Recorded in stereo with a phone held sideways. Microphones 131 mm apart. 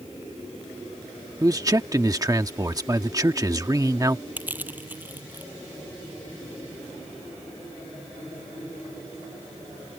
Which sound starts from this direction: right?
A man speaking, at 1.4 s.